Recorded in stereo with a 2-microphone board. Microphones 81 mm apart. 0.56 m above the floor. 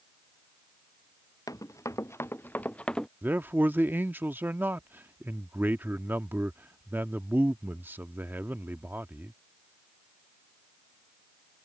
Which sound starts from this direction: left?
Running footsteps, at 1.5 s.